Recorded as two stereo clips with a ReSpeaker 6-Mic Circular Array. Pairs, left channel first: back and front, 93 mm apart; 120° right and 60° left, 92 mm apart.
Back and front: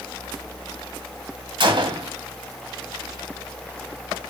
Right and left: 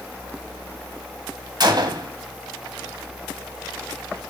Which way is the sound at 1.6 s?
25° left.